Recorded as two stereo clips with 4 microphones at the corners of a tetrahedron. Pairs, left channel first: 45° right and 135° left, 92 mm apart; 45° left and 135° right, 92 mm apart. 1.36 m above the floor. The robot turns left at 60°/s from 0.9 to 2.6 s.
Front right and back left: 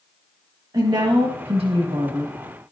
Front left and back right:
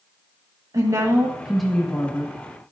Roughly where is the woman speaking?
Behind.